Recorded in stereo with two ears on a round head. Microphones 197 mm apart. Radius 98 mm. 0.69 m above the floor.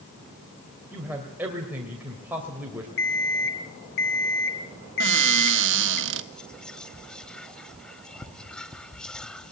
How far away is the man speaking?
About 3 m.